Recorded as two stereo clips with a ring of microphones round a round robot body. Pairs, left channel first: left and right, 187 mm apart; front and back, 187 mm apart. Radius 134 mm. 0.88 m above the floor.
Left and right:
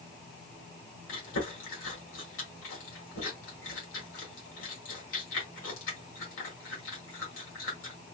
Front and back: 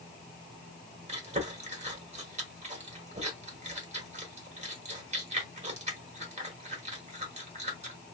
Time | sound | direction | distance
1.1 | chewing | 125° left | 1.5 m